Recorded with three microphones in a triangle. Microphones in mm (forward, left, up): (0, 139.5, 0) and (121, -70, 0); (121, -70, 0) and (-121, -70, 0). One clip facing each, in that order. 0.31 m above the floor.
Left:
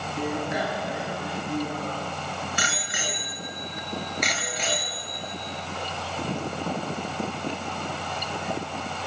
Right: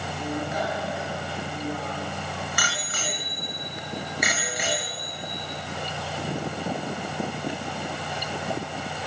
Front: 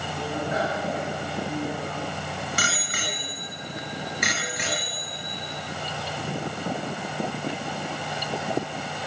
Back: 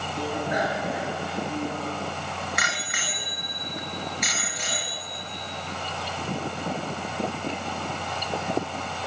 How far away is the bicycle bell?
About 4 m.